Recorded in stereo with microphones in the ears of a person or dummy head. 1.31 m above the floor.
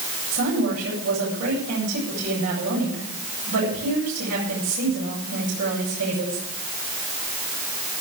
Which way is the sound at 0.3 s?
75° right (ahead or behind).